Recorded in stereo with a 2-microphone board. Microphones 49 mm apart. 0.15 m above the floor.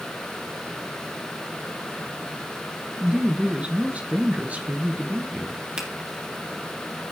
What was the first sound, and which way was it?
A woman speaking, 25° right (ahead or behind).